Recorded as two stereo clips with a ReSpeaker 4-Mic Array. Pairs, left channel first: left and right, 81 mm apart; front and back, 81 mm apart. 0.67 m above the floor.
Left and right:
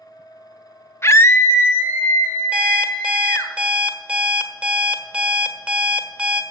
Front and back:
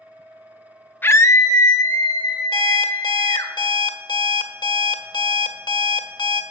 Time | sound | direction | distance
1.0 | a scream | 55° left | 0.6 m
2.5 | an alarm clock | 15° right | 1.3 m